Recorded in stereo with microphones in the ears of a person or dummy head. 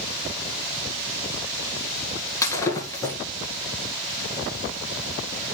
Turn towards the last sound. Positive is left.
turn(degrees=15)  # may be behind; listen again after turning